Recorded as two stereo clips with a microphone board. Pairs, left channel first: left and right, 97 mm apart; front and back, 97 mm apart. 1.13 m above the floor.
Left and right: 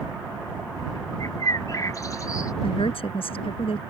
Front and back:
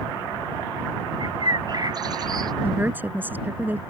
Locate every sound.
1.2 s a bird: 140° left
2.6 s a woman speaking: 110° left